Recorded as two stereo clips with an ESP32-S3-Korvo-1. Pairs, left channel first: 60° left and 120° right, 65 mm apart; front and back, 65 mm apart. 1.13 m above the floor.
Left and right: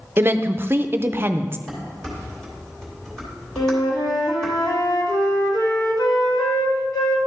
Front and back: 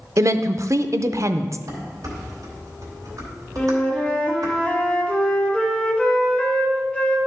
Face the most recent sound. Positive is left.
turn(degrees=70)